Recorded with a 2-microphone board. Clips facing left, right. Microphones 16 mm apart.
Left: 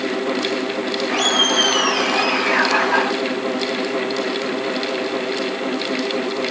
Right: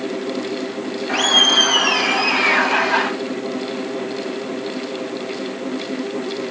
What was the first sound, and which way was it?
Laughter, 5° right (ahead or behind).